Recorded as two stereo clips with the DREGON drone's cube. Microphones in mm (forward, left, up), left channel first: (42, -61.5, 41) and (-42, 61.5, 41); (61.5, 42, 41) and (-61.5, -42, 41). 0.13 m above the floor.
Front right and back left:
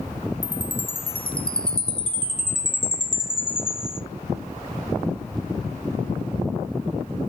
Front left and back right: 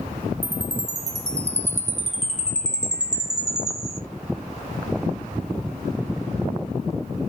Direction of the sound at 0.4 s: 110° right.